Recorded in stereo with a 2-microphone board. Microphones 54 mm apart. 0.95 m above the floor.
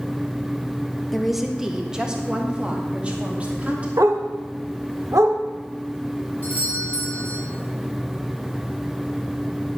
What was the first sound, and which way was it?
A woman speaking, centre (ahead or behind).